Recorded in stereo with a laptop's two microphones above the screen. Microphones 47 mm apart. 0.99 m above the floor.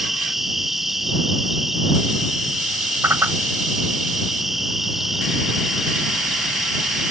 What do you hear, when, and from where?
0.0 s an insect: 5° right (ahead or behind)
3.0 s a whoosh: 60° right (ahead or behind)